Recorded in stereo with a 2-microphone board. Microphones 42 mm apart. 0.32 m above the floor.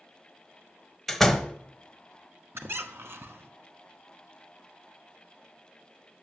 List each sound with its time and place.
1.1 s a door slam: 5° left (ahead or behind), 0.9 m
2.5 s a squeak: 70° right (ahead or behind), 0.8 m